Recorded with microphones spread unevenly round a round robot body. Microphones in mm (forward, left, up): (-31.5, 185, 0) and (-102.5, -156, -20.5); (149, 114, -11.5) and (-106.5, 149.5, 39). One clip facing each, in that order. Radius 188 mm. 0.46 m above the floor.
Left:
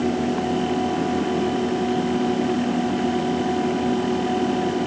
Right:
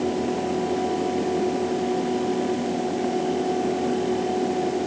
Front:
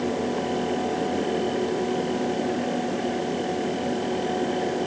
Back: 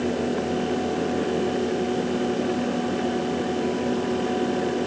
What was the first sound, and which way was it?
Only background noise.